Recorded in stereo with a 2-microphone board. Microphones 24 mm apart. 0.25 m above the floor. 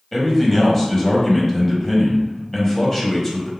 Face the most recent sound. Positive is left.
turn(degrees=15)  # may be behind; listen again after turning